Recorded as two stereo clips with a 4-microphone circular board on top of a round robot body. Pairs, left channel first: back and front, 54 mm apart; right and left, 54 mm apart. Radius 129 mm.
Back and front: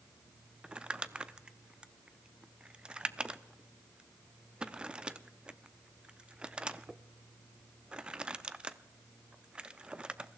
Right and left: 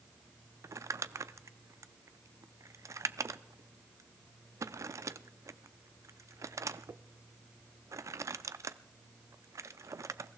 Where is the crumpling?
75° left, 0.6 m.